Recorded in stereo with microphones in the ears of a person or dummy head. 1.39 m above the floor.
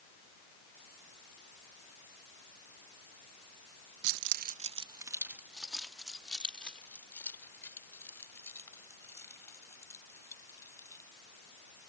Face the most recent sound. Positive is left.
turn(degrees=20)  # may be behind; listen again after turning